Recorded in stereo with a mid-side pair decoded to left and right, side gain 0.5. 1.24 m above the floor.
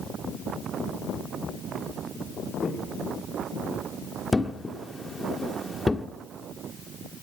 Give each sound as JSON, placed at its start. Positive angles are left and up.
{"t": 2.6, "sound": "footsteps", "azimuth_deg": 25, "distance_m": 6.5}
{"t": 4.3, "sound": "a thud", "azimuth_deg": 15, "distance_m": 1.6}